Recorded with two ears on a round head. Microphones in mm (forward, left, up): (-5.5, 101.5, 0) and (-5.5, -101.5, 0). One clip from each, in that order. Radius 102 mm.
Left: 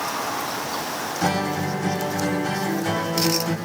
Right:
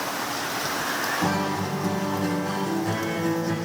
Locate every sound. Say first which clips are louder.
1.2 s a guitar: left 2 dB; 65° left (ahead or behind), 7 m